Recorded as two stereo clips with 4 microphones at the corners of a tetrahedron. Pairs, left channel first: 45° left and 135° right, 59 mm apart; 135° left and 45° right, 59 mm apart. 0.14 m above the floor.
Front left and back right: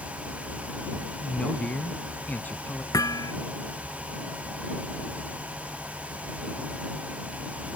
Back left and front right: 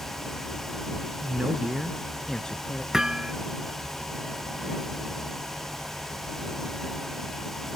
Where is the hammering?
35° left.